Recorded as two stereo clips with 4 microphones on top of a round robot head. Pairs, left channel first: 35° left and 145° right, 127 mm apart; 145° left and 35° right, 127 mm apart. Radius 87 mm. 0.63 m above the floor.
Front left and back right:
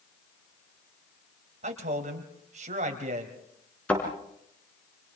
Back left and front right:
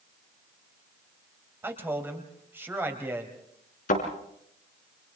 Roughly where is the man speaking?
Right.